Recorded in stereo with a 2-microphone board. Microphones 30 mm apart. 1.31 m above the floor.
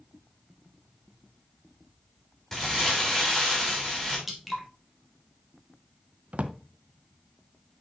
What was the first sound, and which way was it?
Crumpling, 10° left (ahead or behind).